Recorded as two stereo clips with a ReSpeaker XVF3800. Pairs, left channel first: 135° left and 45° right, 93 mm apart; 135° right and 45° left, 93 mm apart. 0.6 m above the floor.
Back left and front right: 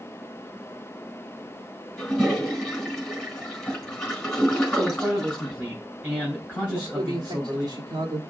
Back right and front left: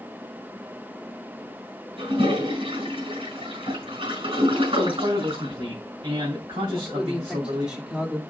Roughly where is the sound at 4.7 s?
Ahead left.